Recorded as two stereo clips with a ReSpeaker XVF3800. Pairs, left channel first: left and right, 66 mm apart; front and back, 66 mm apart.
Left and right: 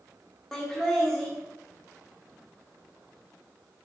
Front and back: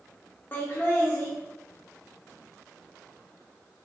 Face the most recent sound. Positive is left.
turn(degrees=15)